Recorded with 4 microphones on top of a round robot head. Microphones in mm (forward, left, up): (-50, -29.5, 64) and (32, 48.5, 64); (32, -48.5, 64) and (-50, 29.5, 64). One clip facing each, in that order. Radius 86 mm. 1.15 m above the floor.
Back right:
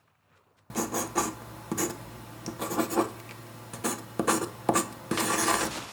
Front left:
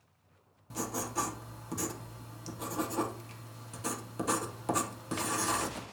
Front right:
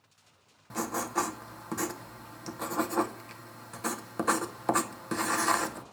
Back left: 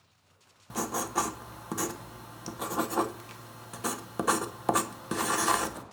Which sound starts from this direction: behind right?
Writing, at 0.7 s.